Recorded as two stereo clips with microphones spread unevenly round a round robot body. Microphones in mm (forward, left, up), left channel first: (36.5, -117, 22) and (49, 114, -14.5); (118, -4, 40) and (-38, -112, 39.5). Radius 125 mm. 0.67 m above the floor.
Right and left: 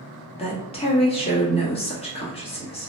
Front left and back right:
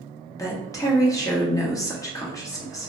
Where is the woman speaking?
30° right, 1.2 m.